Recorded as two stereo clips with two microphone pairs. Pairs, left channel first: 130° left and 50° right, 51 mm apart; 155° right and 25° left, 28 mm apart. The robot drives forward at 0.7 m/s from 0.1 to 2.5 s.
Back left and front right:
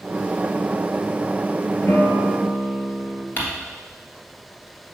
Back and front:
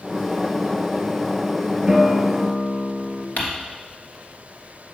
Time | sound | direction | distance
1.9 | a guitar | 90° left | 1.1 m
3.4 | crumpling | straight behind | 1.6 m